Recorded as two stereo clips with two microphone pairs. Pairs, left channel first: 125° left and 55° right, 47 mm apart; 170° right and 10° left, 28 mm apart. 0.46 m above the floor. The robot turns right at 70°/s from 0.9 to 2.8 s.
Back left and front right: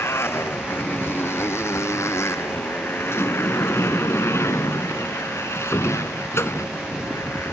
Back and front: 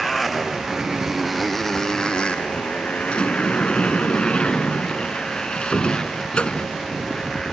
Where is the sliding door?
145° left.